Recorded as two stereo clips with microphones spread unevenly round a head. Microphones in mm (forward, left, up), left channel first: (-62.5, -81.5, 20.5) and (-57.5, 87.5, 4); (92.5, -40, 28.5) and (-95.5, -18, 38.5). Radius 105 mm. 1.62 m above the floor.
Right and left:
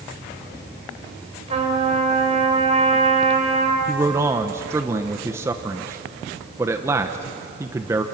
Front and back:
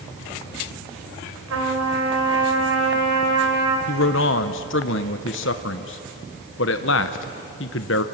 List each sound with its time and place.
1.5 s a trumpet: 145° left, 5.5 m
3.9 s a man speaking: 10° left, 0.7 m